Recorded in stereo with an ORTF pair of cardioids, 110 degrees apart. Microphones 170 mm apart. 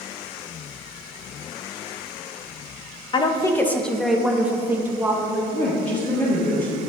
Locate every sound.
3.1 s a woman speaking: 30° left, 0.7 m; by 5.4 s 20° right, 1.5 m
5.5 s a woman speaking: 40° left, 1.6 m